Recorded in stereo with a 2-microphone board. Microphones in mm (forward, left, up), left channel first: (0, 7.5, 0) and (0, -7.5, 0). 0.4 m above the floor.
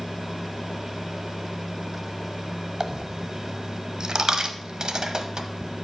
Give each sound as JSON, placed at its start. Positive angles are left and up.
{"t": 2.8, "sound": "a dropped coin", "side_deg": -55, "distance_m": 0.9}